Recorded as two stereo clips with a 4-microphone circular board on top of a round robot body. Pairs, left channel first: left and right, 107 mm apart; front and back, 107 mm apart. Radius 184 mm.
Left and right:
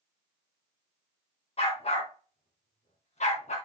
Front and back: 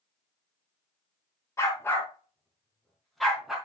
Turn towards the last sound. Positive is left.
turn(degrees=95)